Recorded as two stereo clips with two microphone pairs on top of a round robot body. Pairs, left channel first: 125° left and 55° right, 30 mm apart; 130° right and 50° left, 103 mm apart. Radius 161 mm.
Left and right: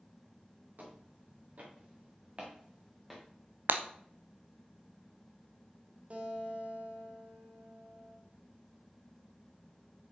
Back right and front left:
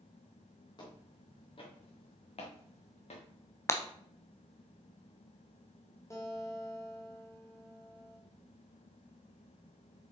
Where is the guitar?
80° right, 2.5 m.